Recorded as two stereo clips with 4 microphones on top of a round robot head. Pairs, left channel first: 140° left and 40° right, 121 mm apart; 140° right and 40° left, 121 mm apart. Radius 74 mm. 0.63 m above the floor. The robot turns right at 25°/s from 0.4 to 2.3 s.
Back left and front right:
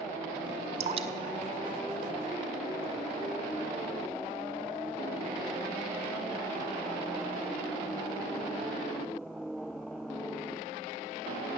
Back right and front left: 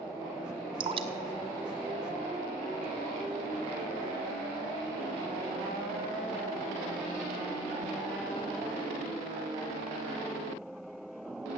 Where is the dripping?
5° right, 1.0 m; by 2.8 s 30° left, 1.0 m.